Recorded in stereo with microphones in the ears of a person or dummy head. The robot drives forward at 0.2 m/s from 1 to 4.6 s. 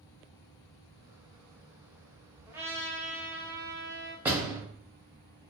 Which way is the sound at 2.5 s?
10° right (ahead or behind).